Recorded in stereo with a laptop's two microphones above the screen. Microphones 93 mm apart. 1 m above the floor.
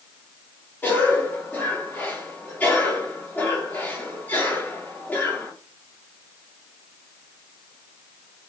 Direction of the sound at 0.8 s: 20° left (ahead or behind).